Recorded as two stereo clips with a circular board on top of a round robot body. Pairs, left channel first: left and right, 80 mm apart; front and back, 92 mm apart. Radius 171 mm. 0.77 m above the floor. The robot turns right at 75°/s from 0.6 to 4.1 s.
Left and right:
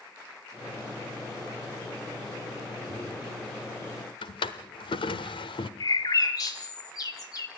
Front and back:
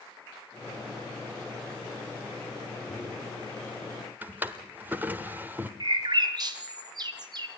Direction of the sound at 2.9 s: 75° right.